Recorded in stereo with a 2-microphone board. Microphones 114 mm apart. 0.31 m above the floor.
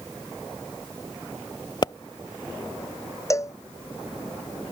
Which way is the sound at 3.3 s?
25° left (ahead or behind).